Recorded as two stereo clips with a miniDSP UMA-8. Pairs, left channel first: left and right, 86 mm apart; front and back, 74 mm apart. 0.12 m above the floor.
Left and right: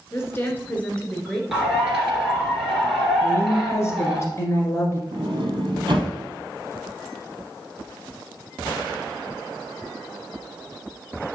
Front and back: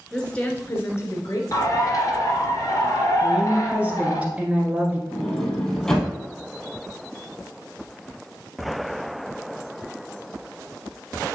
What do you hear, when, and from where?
0.1 s a woman speaking: 75° left, 1.6 m; by 1.4 s 5° left, 2 m
1.5 s a bird: 10° right, 2.5 m
3.2 s a woman speaking: 120° left, 1.3 m
5.1 s a sliding door: 80° right, 1.9 m